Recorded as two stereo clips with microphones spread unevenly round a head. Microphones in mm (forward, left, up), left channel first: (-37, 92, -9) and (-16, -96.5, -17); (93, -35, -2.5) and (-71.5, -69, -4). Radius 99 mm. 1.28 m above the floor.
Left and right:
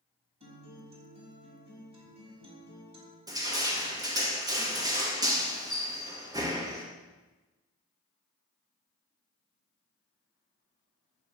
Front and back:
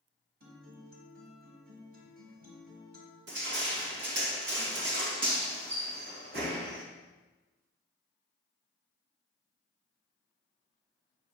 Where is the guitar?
145° right, 4.5 m.